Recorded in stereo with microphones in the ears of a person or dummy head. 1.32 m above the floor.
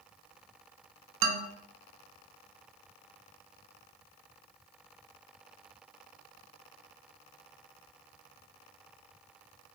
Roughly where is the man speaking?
Right.